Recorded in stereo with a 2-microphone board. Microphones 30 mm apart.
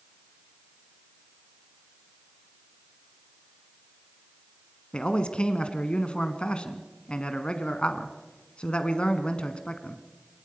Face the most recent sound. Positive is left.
turn(degrees=35)  # may be behind; listen again after turning